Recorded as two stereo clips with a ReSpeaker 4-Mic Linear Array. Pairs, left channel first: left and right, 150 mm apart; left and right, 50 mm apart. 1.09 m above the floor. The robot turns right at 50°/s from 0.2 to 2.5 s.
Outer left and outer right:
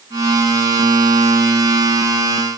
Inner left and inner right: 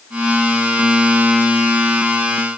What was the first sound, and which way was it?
Only background noise.